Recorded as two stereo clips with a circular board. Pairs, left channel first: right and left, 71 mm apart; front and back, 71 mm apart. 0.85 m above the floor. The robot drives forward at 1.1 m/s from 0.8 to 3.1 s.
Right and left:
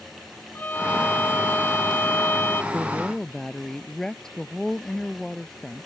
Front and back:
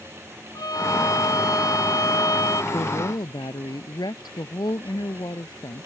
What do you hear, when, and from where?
0.6 s a violin: 25° right; by 2.6 s 30° right
2.7 s a woman speaking: 5° right